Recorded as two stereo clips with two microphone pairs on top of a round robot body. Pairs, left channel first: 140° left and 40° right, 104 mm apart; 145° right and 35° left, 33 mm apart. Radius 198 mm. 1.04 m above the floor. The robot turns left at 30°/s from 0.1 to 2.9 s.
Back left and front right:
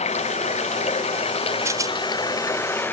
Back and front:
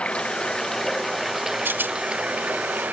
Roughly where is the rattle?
Ahead left.